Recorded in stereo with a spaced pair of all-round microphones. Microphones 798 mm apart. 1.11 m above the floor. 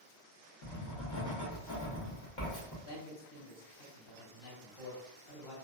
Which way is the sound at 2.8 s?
35° left (ahead or behind).